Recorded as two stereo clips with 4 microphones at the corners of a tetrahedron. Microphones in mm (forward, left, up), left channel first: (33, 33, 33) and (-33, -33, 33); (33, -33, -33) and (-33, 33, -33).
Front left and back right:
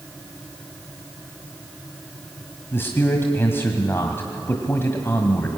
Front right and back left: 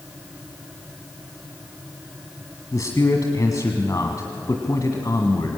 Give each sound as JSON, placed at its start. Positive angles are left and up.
{"t": 2.7, "sound": "a man speaking", "azimuth_deg": -10, "distance_m": 1.7}